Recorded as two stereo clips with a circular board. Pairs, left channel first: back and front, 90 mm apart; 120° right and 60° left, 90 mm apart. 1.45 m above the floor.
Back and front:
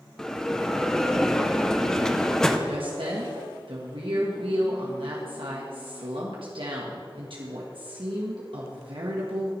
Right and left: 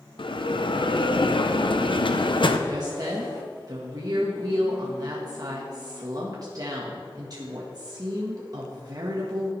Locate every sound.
0.2 s a bell: 95° right, 0.7 m
2.7 s a woman speaking: 15° left, 1.4 m